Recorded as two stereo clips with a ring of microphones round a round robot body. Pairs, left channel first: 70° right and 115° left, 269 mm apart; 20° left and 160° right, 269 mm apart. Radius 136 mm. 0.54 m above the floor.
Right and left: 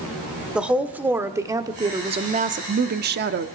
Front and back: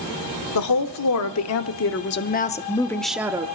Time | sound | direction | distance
0.6 | a woman speaking | 25° left | 1.4 m